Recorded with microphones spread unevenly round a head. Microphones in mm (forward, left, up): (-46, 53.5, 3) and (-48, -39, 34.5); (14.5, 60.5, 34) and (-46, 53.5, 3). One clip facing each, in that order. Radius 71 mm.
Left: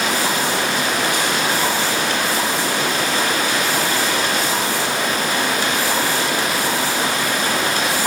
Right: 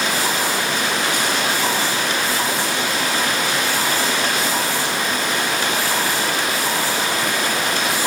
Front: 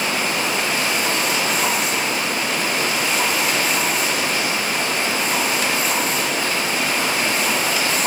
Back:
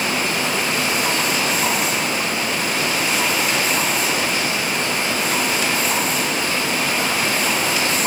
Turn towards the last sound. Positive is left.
No sound to turn to.